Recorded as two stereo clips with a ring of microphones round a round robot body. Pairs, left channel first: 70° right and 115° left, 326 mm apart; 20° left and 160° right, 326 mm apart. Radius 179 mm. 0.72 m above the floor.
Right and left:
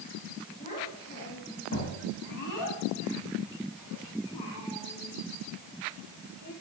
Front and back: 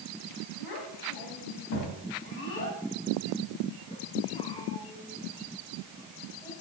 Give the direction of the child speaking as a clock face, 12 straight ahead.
12 o'clock.